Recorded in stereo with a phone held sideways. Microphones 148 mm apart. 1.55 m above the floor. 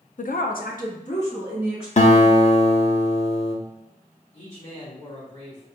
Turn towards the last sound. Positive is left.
turn(degrees=50)  # may be behind; listen again after turning